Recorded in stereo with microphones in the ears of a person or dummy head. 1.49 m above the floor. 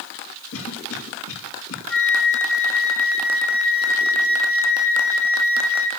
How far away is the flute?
About 2 m.